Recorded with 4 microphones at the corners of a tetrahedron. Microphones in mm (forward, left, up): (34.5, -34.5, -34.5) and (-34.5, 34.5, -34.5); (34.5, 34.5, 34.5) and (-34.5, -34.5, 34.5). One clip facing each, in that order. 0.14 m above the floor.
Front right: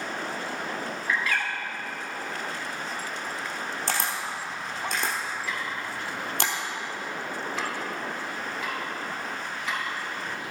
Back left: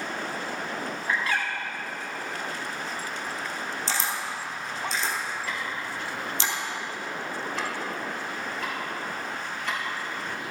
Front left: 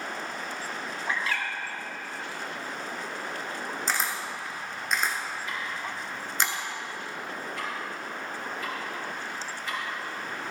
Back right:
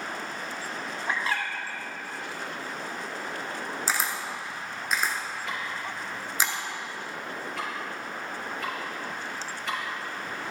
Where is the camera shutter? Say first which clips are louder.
Front right 1 dB, even; 50° right, 1.3 m.